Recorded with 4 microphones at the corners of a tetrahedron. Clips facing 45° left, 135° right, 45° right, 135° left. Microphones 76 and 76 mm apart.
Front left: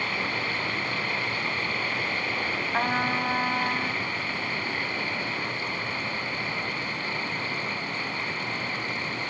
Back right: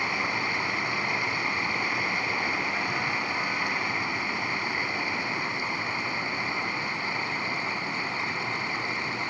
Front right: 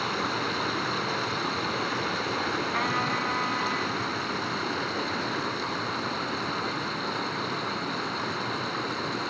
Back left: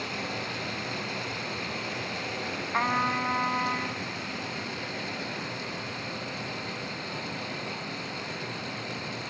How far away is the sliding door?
I don't hear a sliding door.